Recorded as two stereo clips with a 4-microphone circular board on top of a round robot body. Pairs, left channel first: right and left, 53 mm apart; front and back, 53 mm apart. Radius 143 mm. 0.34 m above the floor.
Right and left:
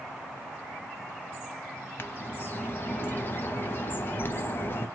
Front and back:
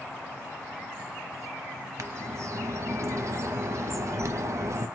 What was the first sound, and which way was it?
A bird, 145° right.